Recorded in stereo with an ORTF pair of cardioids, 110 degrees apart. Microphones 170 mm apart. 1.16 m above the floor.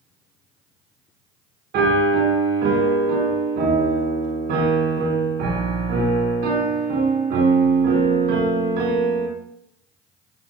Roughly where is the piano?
Right.